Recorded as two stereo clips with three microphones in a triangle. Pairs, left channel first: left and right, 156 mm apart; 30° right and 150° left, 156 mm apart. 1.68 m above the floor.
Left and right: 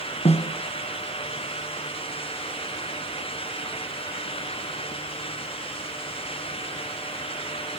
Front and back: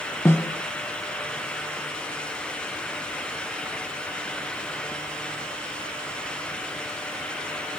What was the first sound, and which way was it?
A snare drum, 45° left.